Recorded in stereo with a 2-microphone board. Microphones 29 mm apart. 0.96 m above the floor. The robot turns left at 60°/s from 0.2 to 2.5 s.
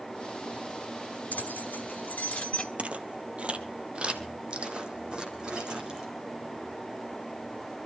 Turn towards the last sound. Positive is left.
turn(degrees=-25)  # may be behind; listen again after turning